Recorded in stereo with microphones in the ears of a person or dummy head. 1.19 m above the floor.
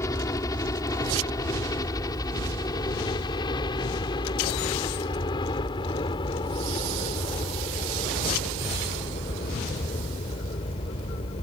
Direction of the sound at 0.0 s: 20° left (ahead or behind).